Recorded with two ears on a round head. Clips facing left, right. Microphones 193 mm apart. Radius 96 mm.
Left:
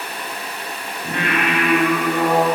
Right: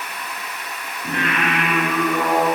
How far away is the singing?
About 3 m.